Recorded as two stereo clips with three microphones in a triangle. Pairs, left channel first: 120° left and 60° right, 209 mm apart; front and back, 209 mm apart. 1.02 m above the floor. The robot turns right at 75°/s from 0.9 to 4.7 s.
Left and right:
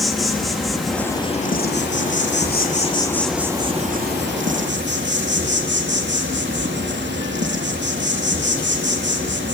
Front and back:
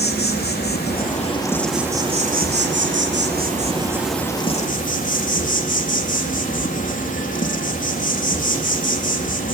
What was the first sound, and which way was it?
An insect, 30° left.